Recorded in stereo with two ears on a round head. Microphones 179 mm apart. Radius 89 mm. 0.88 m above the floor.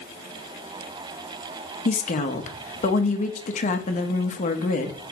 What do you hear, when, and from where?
1.9 s a woman speaking: 35° left (ahead or behind), 0.9 m